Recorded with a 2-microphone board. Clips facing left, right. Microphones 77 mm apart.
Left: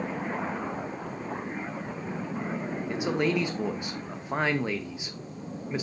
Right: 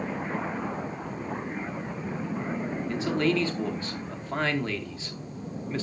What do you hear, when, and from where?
2.9 s a man speaking: 15° left (ahead or behind), 0.7 m